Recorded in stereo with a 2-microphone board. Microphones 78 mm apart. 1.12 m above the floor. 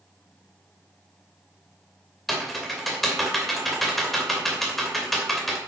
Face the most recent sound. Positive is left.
turn(degrees=0)  # may be behind; listen again after turning